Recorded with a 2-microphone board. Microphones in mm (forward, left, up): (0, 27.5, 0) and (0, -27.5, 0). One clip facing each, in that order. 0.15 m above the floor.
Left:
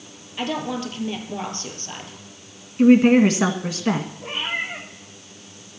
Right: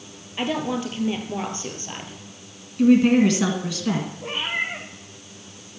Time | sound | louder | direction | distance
0.4 | a woman speaking | right 1 dB | 15° right (ahead or behind) | 3 m
2.8 | a woman speaking | left 2 dB | 30° left (ahead or behind) | 1.4 m
4.2 | a cat meowing | right 1 dB | 5° right (ahead or behind) | 3.5 m